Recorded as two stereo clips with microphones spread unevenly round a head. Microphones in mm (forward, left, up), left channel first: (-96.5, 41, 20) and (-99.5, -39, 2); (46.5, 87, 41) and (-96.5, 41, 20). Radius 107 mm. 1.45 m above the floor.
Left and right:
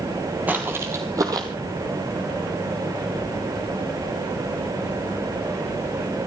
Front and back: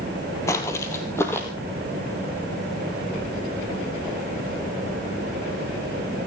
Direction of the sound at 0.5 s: 15° right.